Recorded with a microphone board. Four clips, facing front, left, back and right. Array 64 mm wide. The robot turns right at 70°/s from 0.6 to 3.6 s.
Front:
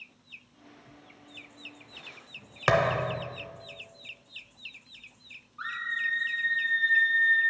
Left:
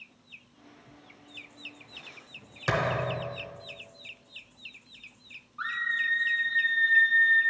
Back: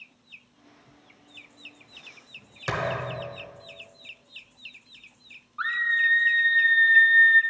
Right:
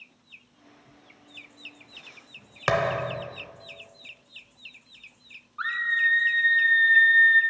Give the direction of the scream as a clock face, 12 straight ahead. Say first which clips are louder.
Right 5 dB, back 8 dB; 5 o'clock.